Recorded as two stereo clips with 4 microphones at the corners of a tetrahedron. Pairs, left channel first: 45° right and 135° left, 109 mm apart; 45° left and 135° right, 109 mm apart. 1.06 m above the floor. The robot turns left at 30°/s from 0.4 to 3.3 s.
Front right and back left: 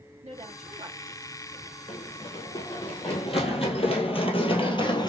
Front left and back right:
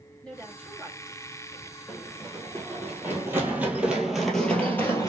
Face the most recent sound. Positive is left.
turn(degrees=-10)